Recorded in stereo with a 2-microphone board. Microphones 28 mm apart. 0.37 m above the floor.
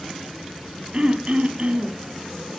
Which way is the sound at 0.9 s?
35° right (ahead or behind).